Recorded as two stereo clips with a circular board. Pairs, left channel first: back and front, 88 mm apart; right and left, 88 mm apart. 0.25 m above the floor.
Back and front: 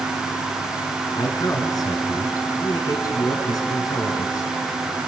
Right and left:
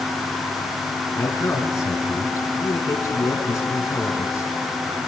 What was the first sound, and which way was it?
A man speaking, 140° right.